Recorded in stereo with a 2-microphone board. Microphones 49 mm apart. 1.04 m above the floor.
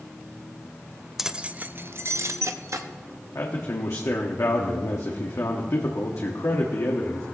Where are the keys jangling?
5° right (ahead or behind), 0.5 m; by 2.9 s 80° right, 1.0 m.